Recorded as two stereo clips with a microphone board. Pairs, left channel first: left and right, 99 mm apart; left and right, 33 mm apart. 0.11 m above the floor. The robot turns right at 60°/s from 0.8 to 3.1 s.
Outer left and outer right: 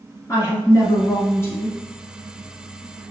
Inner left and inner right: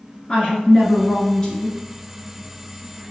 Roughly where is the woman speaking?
Left.